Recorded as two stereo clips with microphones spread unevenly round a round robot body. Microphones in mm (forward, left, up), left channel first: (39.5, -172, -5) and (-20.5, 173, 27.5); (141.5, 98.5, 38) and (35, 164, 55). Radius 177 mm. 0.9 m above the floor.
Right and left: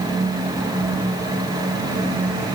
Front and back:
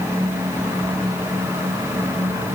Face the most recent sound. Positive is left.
No sound to turn to.